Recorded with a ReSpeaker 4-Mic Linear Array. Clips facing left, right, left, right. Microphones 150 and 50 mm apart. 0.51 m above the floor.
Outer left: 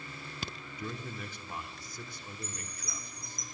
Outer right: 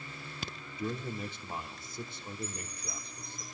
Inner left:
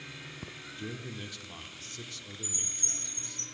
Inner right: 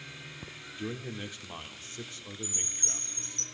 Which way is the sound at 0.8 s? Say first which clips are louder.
Outer right 5 dB, inner right 4 dB; 25° right (ahead or behind).